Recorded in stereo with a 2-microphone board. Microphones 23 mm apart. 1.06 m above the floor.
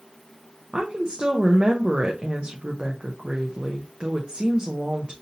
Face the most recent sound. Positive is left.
turn(degrees=-40)  # may be behind; listen again after turning